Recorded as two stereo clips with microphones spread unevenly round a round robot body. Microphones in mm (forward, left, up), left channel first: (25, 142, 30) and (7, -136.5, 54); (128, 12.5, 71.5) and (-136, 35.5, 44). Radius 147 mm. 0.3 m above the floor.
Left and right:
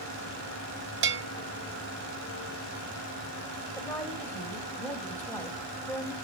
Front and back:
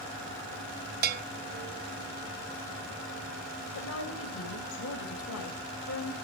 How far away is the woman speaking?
About 1.7 m.